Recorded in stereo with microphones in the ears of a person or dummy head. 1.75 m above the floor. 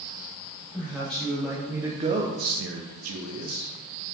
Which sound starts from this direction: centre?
A man speaking, at 0.7 s.